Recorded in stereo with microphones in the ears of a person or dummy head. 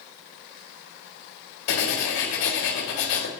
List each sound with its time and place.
1.7 s writing: 65° left (ahead or behind), 1.5 m